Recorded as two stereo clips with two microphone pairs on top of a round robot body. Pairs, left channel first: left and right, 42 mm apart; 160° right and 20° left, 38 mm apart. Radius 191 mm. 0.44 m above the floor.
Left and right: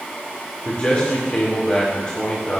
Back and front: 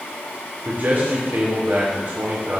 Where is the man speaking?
35° left, 2.0 m.